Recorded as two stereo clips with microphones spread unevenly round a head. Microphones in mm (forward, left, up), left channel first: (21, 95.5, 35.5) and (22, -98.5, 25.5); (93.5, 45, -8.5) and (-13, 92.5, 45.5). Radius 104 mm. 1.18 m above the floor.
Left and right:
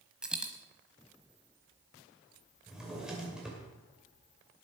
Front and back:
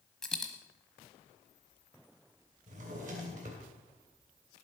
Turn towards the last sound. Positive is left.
turn(degrees=180)